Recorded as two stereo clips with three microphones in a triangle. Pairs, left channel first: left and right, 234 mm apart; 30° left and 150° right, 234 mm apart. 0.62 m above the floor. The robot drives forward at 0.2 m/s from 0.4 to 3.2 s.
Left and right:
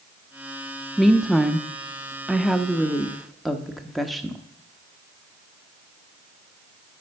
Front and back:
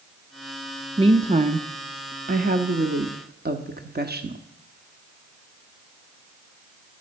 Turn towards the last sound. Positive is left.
turn(degrees=180)